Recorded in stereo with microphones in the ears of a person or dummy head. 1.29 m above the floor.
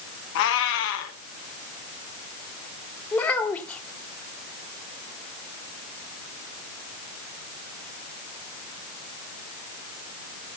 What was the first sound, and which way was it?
A cat meowing, 55° left (ahead or behind).